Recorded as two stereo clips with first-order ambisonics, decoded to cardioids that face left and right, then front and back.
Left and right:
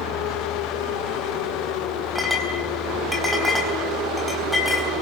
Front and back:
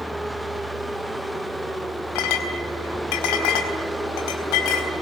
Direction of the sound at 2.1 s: 5° left.